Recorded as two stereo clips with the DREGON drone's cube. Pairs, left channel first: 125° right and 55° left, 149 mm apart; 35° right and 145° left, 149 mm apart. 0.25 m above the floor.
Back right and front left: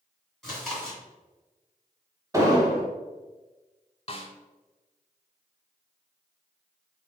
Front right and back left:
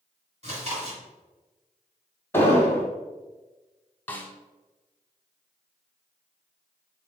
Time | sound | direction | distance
0.4 | chewing | 150° left | 1.8 m
2.3 | an explosion | 20° left | 0.9 m
4.1 | a snare drum | 105° right | 0.5 m